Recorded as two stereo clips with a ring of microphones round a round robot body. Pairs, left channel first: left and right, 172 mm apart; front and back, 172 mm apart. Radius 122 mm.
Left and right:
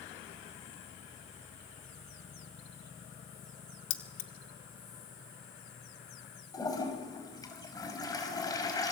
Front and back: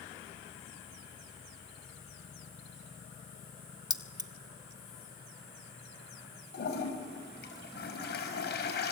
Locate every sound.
3.9 s keys jangling: 115° left, 1.8 m
6.5 s a toilet flushing: 20° left, 5.5 m